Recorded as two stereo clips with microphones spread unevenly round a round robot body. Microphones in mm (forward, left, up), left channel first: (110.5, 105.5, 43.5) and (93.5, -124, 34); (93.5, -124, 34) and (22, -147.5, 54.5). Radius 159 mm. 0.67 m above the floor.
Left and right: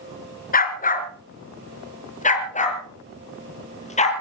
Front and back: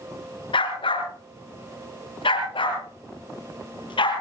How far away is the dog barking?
About 2.5 m.